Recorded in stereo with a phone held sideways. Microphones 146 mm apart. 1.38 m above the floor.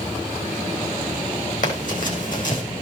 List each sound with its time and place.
1.6 s running footsteps: 60° left (ahead or behind), 4.5 m